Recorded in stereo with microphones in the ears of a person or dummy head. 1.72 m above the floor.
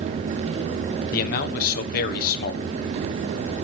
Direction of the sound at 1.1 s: 55° left (ahead or behind).